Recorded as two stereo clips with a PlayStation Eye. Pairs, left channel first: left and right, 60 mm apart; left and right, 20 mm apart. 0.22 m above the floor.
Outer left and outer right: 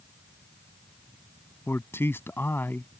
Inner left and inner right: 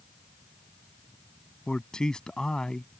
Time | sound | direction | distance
1.7 | a man speaking | 45° left (ahead or behind) | ?